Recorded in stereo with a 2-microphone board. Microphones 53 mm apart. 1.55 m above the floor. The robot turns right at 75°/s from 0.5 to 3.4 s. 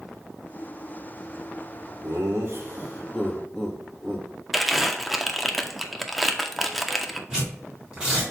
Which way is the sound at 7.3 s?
15° right (ahead or behind).